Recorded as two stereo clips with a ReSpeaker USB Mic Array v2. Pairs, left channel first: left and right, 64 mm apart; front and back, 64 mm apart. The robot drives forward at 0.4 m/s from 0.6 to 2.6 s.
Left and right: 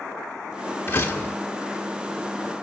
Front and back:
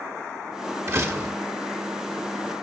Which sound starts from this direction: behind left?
A door slam, at 0.9 s.